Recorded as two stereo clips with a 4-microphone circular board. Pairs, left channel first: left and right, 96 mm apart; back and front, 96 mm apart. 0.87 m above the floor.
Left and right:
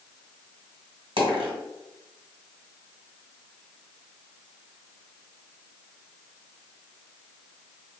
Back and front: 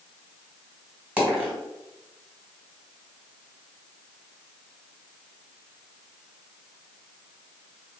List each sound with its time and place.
1.2 s a dropped coin: 75° right, 1.5 m